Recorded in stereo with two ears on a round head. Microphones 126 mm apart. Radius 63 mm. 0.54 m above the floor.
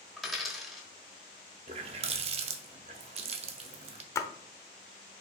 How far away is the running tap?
About 0.5 m.